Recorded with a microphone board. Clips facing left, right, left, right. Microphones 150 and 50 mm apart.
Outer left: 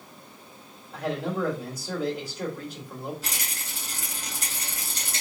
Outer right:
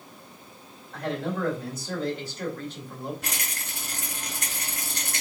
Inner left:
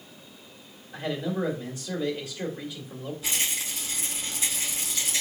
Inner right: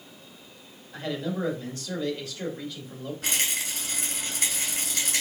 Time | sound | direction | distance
0.9 | a man speaking | 10° left (ahead or behind) | 1.8 m
3.2 | a rattle | 65° right (ahead or behind) | 2.5 m